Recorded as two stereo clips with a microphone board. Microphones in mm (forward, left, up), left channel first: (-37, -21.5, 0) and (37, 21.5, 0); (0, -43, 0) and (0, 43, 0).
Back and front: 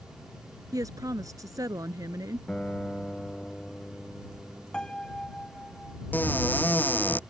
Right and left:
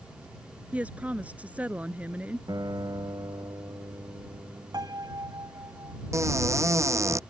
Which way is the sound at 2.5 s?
130° left.